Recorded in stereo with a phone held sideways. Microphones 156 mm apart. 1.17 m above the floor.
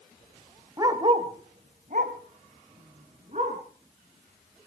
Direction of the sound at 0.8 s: 20° right (ahead or behind).